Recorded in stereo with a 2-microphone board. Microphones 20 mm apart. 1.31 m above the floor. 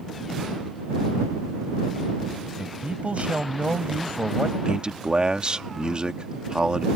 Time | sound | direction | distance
2.6 | a man speaking | 70° right (ahead or behind) | ?
4.7 | a man speaking | 40° right (ahead or behind) | ?